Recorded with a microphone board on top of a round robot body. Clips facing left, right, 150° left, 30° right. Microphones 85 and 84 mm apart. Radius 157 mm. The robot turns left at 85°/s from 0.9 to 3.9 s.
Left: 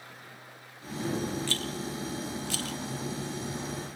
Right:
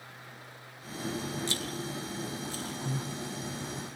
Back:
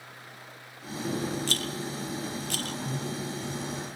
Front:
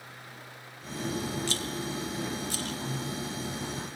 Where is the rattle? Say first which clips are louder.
Left 2 dB, even; 160° right, 0.6 m; by 2.8 s 90° left, 0.6 m.